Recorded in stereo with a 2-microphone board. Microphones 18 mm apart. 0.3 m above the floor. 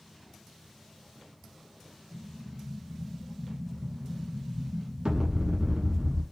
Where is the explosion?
85° right, 0.9 m.